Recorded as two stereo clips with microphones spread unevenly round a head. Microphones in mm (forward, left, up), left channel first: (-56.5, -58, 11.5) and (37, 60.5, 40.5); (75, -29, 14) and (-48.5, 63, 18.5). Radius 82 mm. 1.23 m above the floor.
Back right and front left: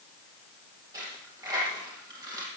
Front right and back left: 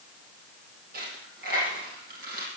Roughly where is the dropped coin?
Behind left.